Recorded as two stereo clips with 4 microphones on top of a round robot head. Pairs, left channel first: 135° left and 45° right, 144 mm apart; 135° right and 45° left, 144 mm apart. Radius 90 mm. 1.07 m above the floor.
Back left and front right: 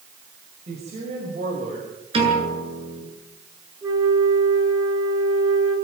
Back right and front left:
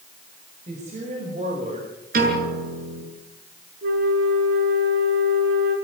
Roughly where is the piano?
Ahead.